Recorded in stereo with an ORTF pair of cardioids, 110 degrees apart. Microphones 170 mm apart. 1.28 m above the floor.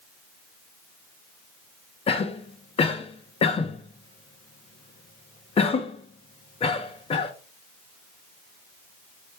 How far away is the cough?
About 1.5 m.